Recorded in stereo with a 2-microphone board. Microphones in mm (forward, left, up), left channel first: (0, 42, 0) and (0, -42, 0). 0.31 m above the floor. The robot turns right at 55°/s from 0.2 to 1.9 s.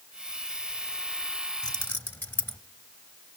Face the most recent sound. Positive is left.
turn(degrees=20)  # may be behind; listen again after turning